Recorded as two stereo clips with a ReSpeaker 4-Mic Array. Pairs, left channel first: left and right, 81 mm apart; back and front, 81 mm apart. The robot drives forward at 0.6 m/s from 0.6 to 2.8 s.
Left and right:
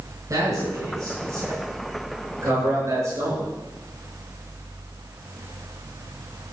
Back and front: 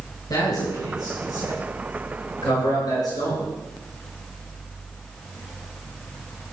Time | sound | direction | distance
0.3 | a man speaking | 135° right | 6.5 m